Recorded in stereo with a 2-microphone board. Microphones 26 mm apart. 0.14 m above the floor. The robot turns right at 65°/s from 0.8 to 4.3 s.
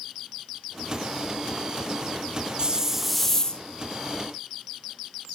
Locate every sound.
2.6 s a hiss: 30° right, 0.6 m; by 3.6 s 35° left, 0.6 m